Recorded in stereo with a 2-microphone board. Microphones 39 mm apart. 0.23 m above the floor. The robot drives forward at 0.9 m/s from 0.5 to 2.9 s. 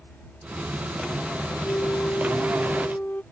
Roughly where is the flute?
Left.